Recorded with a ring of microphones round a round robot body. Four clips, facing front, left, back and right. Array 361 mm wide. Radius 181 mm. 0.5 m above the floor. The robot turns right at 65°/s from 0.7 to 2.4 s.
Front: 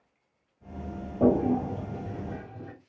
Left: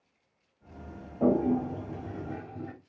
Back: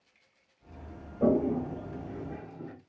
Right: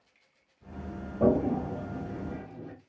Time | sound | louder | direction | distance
1.2 | a toilet flushing | even, front 3 dB | 20° right | 0.8 m